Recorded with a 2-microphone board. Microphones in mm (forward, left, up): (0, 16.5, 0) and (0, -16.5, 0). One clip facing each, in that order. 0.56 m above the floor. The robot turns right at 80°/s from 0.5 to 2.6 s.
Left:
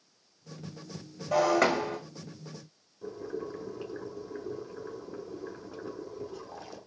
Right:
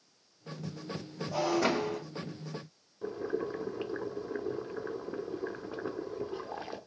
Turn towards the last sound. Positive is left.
turn(degrees=-30)  # may be behind; listen again after turning